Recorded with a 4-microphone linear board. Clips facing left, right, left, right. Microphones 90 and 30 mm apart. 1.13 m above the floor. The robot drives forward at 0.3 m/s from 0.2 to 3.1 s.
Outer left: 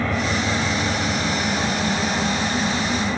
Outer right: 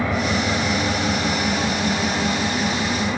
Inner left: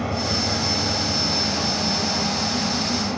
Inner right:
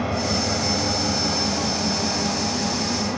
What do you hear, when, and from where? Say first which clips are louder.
0.0 s an engine running: outer right 1 dB, inner right 1 dB; 10° right (ahead or behind), 1.8 m